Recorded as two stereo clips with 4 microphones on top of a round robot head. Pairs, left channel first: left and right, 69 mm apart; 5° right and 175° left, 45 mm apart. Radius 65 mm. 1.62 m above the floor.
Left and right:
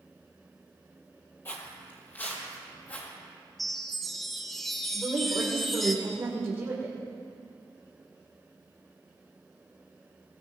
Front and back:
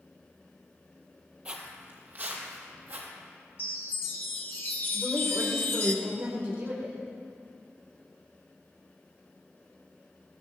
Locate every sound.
1.4 s footsteps: 135° left, 1.9 m; by 3.1 s 150° left, 4 m
3.6 s a chime: 5° left, 0.7 m
4.9 s a woman speaking: 135° right, 2.5 m